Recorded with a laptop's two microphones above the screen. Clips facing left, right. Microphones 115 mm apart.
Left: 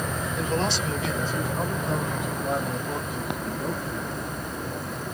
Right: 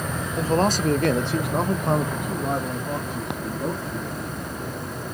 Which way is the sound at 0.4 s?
30° right (ahead or behind).